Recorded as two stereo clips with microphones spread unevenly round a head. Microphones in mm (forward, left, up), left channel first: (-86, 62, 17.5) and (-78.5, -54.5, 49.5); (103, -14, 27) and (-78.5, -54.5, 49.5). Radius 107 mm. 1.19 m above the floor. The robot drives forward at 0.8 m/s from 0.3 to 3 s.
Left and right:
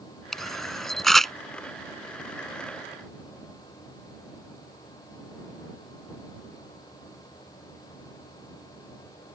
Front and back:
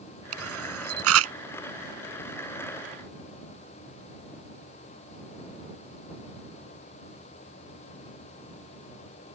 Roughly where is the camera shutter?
Behind.